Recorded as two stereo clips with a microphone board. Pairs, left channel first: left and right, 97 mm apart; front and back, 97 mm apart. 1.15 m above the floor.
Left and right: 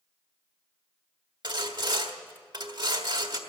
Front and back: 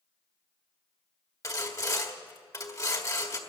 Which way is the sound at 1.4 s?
50° right.